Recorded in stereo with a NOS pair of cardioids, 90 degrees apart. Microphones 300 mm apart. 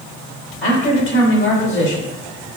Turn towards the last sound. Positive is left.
turn(degrees=40)